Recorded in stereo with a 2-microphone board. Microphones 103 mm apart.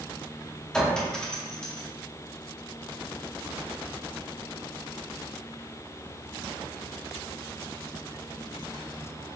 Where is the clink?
5° left (ahead or behind), 0.7 m.